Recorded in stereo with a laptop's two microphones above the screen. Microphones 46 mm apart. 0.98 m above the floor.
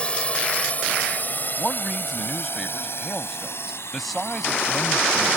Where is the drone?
25° left (ahead or behind); by 5.4 s 75° left (ahead or behind).